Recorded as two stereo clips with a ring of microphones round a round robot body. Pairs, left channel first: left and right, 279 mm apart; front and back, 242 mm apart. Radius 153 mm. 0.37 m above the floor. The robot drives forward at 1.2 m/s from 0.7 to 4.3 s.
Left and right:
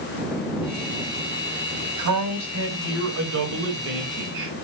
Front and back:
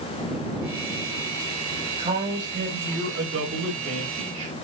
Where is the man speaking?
110° right, 4 m; by 4.5 s 140° right, 5.5 m.